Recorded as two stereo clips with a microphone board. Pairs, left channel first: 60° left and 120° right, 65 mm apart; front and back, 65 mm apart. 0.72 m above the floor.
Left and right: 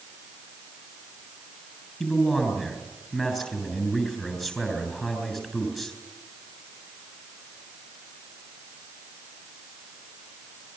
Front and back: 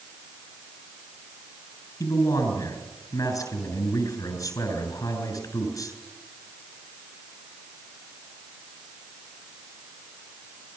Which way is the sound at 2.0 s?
35° right.